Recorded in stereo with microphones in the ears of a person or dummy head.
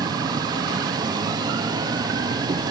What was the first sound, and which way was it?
An insect, 25° right (ahead or behind).